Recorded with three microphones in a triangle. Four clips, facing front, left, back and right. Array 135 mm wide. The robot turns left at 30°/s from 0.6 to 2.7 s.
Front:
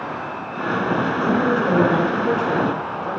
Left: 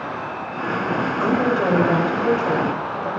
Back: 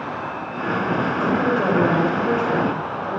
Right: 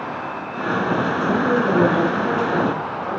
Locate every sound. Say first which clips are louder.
1.2 s a woman speaking: left 1 dB, even; 125° left, 6.5 m; by 3.1 s 80° left, 6.5 m